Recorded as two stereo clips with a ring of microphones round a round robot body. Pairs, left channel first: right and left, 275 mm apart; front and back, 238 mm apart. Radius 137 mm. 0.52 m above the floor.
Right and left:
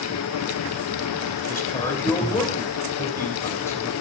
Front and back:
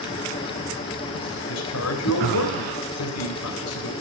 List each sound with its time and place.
1.5 s a man speaking: 10° right, 2.5 m